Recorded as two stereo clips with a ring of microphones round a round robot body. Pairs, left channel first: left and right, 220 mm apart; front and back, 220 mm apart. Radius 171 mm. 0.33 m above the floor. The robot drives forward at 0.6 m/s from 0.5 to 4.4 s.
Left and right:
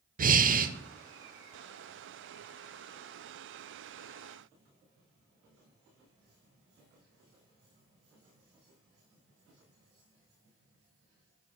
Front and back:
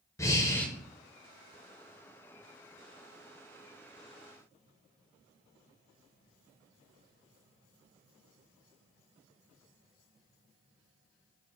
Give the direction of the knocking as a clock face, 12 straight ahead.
I don't hear knocking.